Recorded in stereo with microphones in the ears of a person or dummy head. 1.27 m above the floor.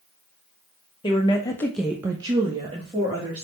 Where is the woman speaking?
30° left (ahead or behind), 0.9 m; by 3.4 s 35° right (ahead or behind), 1.6 m.